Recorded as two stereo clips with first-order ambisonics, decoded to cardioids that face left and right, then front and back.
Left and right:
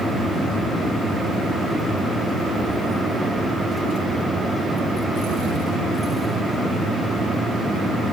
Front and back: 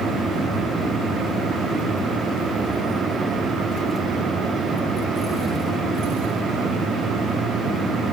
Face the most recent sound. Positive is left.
No sound to turn to.